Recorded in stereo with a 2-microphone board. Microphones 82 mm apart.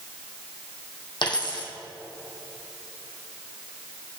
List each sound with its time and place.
1.2 s a dropped coin: 65° left (ahead or behind), 2 m